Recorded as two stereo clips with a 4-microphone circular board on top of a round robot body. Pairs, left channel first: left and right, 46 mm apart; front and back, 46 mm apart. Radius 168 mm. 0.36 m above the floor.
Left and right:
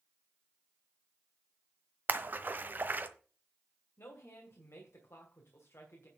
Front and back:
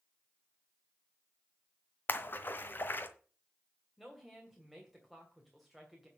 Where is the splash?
45° right, 1.1 m.